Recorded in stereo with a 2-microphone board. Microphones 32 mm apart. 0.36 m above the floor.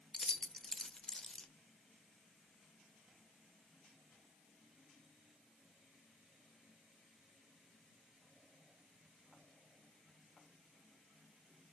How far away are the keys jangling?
About 0.5 m.